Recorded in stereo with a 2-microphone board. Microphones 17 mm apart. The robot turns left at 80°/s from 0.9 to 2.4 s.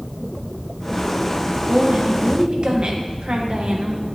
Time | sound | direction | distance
1.7 | a woman speaking | 45° right | 1.2 m